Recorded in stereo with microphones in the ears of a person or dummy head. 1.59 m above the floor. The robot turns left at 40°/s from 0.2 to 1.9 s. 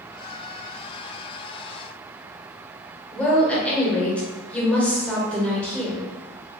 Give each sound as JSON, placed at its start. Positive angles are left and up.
{"t": 3.1, "sound": "a woman speaking", "side_deg": 5, "distance_m": 1.0}